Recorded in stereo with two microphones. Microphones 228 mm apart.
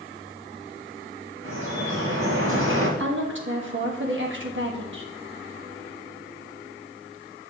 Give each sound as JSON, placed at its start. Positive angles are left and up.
{"t": 1.4, "sound": "dripping", "side_deg": -60, "distance_m": 3.0}
{"t": 3.0, "sound": "a woman speaking", "side_deg": -60, "distance_m": 1.3}